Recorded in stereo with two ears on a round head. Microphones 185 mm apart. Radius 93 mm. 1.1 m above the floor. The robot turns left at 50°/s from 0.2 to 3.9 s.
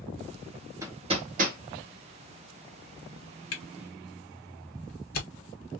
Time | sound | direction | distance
0.8 | hammering | 15° right (ahead or behind) | 0.8 m
3.5 | a camera shutter | 65° left (ahead or behind) | 1.1 m